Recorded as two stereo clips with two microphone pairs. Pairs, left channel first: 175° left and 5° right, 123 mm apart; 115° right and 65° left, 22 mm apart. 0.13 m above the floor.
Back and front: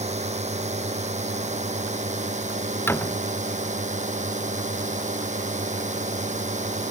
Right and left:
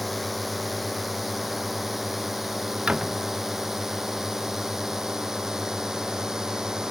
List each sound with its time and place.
0.0 s a drone: 30° right; by 6.9 s straight ahead
2.9 s a door slam: 100° left